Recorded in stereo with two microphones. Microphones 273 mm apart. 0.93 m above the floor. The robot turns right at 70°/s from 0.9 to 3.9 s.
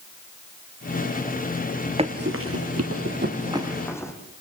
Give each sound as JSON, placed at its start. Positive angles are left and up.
{"t": 2.0, "sound": "running footsteps", "side_deg": -20, "distance_m": 1.2}